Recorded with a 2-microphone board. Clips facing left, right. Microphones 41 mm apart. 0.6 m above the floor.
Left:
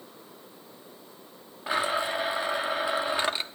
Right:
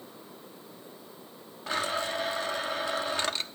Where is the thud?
I don't hear a thud.